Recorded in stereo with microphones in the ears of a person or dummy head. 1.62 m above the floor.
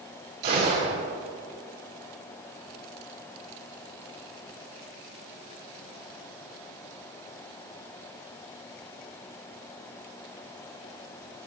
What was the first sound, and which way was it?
A gunshot, 55° right (ahead or behind).